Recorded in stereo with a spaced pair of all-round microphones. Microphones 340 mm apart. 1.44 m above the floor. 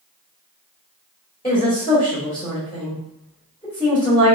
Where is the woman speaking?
15° left (ahead or behind), 1.5 m.